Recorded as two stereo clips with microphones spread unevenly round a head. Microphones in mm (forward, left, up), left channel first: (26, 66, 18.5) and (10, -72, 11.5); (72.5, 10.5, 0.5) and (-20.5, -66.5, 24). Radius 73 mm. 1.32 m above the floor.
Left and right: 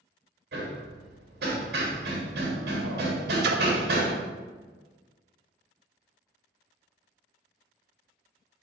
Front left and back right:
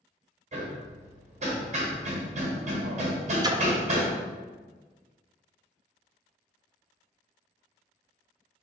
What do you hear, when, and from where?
0.5 s hammering: 110° right, 1.2 m
3.4 s a splash: 85° right, 0.6 m